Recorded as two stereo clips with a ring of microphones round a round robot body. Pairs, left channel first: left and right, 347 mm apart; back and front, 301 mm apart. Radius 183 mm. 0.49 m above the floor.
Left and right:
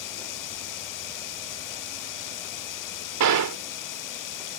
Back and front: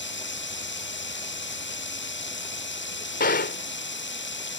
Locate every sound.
0.0 s running water: 125° left
3.2 s a gunshot: 120° right